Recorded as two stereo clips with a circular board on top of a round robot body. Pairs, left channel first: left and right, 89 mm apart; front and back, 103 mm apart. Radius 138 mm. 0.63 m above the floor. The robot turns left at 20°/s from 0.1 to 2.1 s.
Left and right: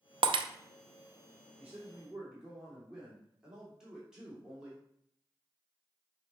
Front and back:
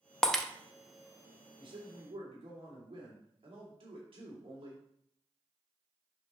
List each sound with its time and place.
0.2 s breaking glass: 80° right, 0.6 m; by 0.5 s 85° right, 0.6 m
1.6 s a man speaking: 160° right, 2.5 m; by 4.8 s 170° right, 2.5 m